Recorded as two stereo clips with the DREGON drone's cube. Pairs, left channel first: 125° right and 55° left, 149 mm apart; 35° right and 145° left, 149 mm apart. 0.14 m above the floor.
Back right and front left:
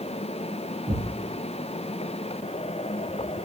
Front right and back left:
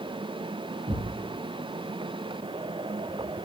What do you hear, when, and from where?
0.9 s a thud: 110° left, 8.5 m